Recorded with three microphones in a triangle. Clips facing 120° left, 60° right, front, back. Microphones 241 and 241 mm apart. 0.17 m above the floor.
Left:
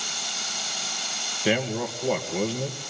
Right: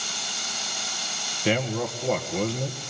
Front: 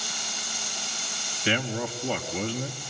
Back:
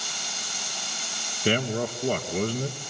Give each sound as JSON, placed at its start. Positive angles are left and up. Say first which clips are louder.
{"t": 1.4, "sound": "a man speaking", "louder": "even, back 3 dB", "azimuth_deg": -155, "distance_m": 2.5}